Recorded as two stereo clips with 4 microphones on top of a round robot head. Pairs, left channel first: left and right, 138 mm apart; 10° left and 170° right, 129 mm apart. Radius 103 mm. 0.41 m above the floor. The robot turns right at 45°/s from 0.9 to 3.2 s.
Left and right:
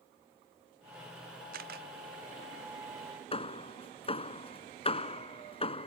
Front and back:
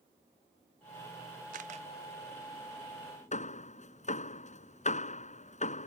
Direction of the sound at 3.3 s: 40° left.